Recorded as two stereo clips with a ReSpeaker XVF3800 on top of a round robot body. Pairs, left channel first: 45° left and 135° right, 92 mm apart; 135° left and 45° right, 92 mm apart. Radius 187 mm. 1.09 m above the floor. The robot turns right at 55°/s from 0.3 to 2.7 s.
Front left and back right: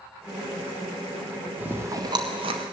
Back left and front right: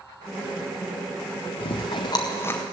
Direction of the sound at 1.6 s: 150° left.